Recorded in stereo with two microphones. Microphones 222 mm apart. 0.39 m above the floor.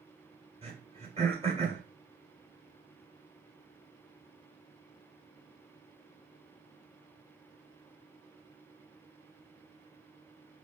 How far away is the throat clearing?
About 2.5 m.